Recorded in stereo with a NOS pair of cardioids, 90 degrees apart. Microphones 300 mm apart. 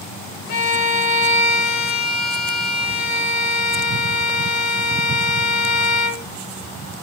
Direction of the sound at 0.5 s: 65° left.